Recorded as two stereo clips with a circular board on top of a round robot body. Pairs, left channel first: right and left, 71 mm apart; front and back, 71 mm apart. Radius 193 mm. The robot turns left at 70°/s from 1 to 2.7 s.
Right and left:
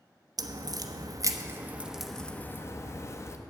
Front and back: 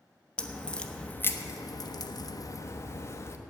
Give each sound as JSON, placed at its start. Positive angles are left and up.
{"t": 0.4, "sound": "a crack", "azimuth_deg": 75, "distance_m": 1.1}